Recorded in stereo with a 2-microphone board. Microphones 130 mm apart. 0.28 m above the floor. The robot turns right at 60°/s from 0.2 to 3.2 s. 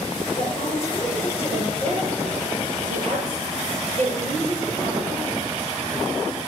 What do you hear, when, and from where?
0.4 s a woman speaking: 130° left, 7 m; by 5.2 s 60° right, 7 m